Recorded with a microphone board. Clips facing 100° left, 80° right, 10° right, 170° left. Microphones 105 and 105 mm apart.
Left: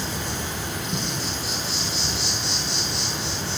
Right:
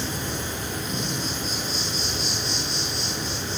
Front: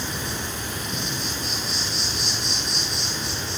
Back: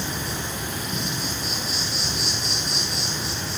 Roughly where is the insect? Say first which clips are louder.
Even, back 1 dB; left.